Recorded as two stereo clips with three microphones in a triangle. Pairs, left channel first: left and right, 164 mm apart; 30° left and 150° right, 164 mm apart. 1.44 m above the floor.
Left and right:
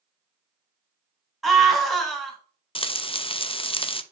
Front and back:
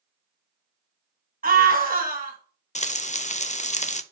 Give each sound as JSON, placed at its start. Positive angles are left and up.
{"t": 1.4, "sound": "a scream", "azimuth_deg": 180, "distance_m": 2.5}
{"t": 2.8, "sound": "frying", "azimuth_deg": 50, "distance_m": 0.5}